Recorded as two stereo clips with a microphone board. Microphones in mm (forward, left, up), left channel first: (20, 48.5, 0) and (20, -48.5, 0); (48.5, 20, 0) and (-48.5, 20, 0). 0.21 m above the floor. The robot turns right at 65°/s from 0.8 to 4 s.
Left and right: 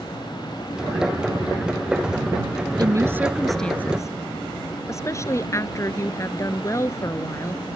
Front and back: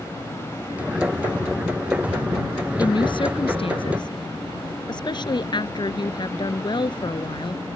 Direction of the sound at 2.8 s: 45° right.